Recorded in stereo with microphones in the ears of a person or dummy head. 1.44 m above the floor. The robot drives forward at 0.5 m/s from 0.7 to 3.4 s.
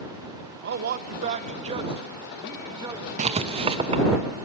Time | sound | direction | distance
0.6 | a man speaking | 45° right (ahead or behind) | 0.6 m
3.2 | writing | 30° right (ahead or behind) | 0.6 m